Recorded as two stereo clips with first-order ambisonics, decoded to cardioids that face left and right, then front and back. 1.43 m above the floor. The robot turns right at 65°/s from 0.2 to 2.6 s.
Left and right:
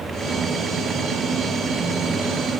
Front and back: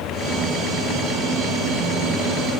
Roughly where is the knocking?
No knocking in this recording.